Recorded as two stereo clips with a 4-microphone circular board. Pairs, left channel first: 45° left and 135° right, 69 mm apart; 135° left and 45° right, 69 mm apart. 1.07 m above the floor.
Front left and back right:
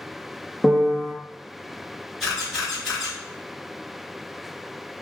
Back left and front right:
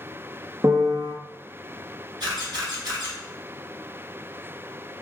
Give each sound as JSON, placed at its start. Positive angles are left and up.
{"t": 0.6, "sound": "a piano", "azimuth_deg": -50, "distance_m": 0.5}
{"t": 2.2, "sound": "a camera shutter", "azimuth_deg": -45, "distance_m": 1.5}